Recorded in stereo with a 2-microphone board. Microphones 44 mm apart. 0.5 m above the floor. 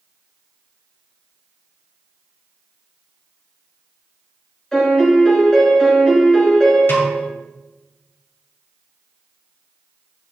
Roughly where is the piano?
Centre.